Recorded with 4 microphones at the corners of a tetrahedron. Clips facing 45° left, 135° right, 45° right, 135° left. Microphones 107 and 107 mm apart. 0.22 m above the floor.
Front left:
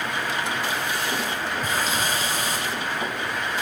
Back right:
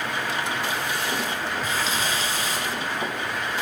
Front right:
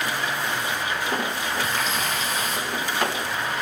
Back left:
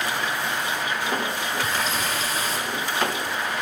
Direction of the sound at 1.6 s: 85° left.